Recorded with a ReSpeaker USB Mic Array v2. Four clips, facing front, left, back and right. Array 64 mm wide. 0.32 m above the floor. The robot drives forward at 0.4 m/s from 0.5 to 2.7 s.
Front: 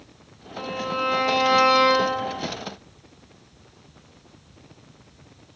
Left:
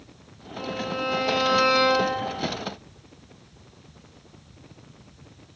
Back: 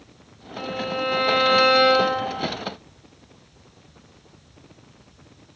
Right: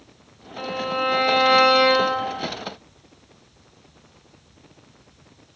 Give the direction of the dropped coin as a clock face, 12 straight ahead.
I don't hear a dropped coin.